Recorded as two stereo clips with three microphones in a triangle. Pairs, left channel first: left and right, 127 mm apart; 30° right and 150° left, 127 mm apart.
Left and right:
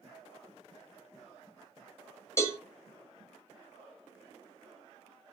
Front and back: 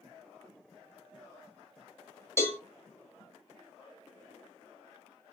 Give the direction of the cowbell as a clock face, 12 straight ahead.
11 o'clock.